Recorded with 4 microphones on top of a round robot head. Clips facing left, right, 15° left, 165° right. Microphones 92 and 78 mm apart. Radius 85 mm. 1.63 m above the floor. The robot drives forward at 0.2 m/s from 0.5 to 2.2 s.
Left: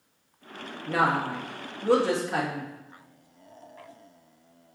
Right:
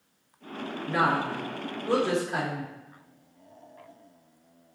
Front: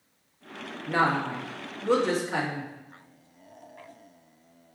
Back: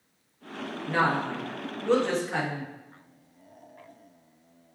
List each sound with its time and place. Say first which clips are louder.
0.9 s a woman speaking: left 1 dB, front 1 dB; 90° left, 2.5 m; by 2.7 s 95° left, 2.5 m